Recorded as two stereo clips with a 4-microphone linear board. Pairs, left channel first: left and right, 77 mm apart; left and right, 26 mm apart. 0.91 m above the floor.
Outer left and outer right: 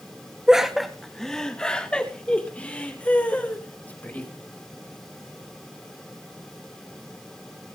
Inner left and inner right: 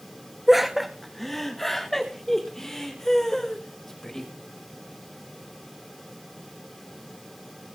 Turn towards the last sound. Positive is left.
turn(degrees=20)  # may be behind; listen again after turning